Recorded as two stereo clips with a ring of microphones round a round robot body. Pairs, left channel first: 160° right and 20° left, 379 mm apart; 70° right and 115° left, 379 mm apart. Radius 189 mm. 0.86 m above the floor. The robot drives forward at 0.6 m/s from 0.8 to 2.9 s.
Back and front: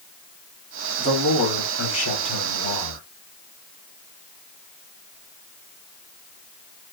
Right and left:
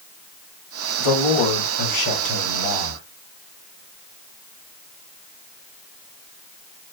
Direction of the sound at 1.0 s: 85° right.